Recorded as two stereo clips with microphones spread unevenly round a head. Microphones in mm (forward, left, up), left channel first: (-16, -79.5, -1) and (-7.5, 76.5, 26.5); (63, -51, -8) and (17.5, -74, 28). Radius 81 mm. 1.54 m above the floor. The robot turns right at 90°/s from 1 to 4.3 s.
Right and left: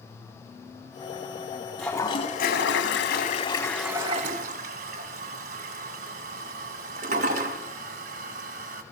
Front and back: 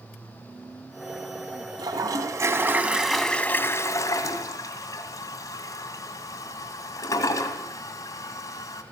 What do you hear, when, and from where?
1.8 s a toilet flushing: 175° left, 2 m; by 8.8 s 40° left, 2 m